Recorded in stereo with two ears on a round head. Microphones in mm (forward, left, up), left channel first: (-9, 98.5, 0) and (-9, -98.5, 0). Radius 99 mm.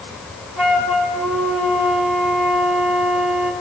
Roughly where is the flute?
Centre.